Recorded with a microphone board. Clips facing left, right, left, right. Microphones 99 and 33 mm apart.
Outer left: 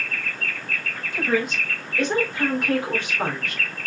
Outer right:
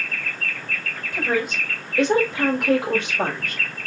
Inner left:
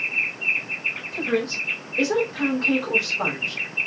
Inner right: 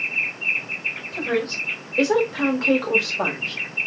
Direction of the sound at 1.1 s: 50° right (ahead or behind).